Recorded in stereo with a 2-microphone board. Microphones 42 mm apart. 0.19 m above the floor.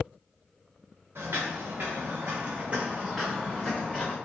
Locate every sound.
1.1 s footsteps: 75° right (ahead or behind), 1.3 m; by 4.2 s 15° left (ahead or behind), 1.1 m